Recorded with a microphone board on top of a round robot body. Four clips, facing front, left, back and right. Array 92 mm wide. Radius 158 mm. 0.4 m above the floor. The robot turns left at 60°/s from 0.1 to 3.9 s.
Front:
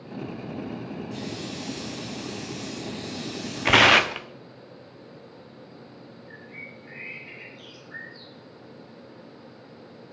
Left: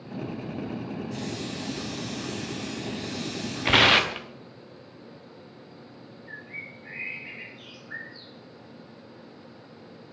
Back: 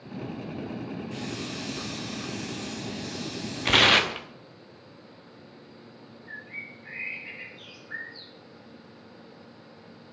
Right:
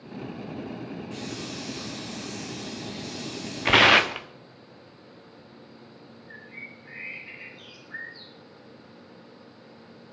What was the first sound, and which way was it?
A hiss, 135° right.